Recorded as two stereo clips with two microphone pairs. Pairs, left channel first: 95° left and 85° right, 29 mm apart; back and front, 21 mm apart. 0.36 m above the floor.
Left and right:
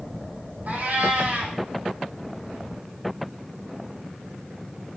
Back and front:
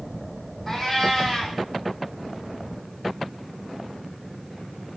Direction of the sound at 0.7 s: 120° right.